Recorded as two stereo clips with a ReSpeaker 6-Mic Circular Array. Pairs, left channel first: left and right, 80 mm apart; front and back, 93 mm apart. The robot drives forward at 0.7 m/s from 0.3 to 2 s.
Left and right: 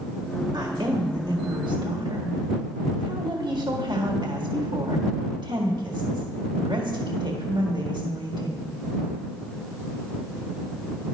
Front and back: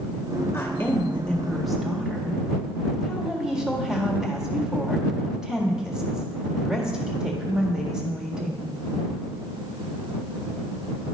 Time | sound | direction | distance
0.5 | a woman speaking | 60° right | 1.7 m